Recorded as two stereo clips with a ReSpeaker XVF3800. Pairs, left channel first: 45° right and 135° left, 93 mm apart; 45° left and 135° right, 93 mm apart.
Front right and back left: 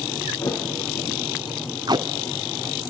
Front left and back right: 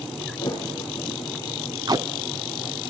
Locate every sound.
0.4 s a thud: 5° right, 4 m
1.9 s tape being pulled: straight behind, 0.5 m